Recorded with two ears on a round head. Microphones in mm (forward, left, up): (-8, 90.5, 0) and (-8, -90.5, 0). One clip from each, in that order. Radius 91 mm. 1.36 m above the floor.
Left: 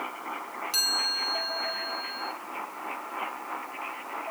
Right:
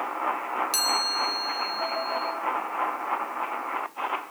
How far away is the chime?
About 3 m.